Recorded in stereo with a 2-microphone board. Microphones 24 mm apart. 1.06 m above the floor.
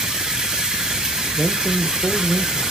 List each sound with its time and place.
0.0 s running water: 30° right (ahead or behind), 2 m
1.4 s a man speaking: 10° right (ahead or behind), 0.6 m